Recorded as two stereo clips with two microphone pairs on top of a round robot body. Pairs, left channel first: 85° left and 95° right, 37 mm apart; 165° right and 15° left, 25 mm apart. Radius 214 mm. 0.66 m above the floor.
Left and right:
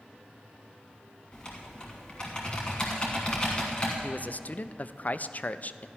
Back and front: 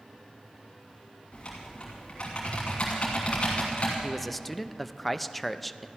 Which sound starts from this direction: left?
A man speaking, at 4.0 s.